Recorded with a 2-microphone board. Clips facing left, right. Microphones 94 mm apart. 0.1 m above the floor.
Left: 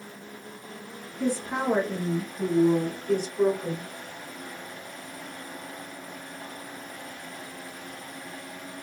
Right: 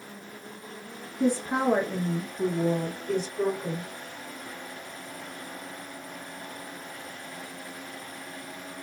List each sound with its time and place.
1.2 s a woman speaking: 20° right (ahead or behind), 1.5 m; by 3.9 s 15° left (ahead or behind), 1.6 m